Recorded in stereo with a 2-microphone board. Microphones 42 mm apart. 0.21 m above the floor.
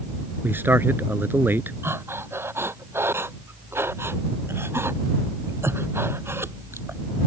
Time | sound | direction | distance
0.4 | a man speaking | 60° right (ahead or behind) | ?
1.8 | breathing | 80° right | ?